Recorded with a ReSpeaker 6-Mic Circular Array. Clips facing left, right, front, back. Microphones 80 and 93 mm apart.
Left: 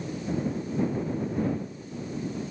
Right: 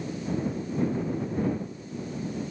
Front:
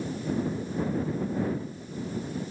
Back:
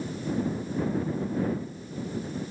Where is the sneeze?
I don't hear a sneeze.